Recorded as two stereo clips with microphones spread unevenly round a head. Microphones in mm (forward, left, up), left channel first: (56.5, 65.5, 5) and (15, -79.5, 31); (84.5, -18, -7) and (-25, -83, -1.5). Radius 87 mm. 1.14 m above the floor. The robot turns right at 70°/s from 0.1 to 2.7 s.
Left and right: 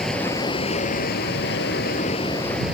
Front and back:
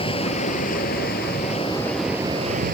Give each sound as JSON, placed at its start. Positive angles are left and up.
{"t": 0.0, "sound": "running water", "azimuth_deg": -15}